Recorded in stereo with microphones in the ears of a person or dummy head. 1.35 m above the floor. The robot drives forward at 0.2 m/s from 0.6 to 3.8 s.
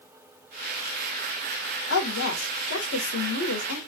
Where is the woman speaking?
75° left (ahead or behind), 1.3 m; by 3.8 s 85° left, 1.2 m.